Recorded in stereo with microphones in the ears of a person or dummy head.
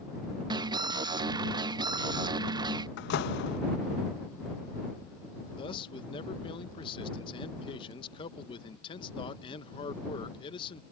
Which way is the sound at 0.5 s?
25° right (ahead or behind).